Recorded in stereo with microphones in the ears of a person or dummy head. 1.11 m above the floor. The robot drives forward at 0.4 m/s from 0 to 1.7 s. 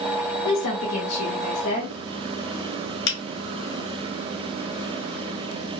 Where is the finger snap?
55° left (ahead or behind), 1.2 m.